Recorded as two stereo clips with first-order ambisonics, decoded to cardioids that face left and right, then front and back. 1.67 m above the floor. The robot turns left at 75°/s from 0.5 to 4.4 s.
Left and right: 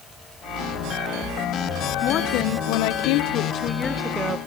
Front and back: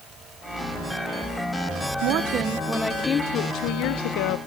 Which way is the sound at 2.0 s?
150° left.